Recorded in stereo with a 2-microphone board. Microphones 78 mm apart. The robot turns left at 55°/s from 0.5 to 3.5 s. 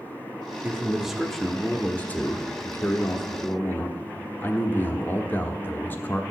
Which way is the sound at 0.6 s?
15° right (ahead or behind).